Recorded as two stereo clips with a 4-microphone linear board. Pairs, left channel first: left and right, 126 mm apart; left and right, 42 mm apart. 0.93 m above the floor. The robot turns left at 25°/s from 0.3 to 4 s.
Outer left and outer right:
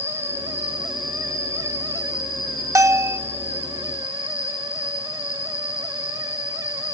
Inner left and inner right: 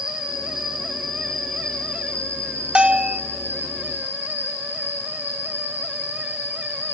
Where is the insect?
160° right, 8.5 m; by 6.9 s 105° left, 8.5 m.